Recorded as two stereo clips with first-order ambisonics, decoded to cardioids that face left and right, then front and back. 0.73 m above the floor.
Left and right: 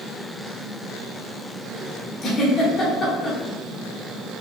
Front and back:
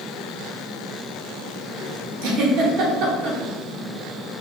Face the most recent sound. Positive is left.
turn(degrees=155)